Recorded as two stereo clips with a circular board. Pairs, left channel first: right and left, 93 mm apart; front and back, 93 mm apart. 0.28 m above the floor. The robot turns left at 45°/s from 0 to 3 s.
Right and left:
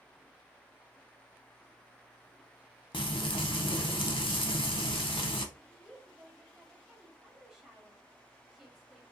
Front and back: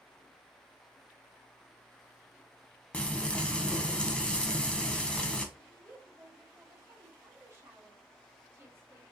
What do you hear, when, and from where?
2.9 s frying: 75° right, 0.6 m
5.5 s a woman speaking: 170° left, 1.3 m